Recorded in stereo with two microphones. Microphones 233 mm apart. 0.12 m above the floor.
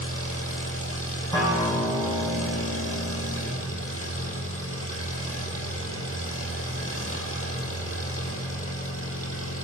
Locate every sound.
0.0 s an engine running: 70° left (ahead or behind), 3 m
1.3 s a guitar: 15° left (ahead or behind), 5 m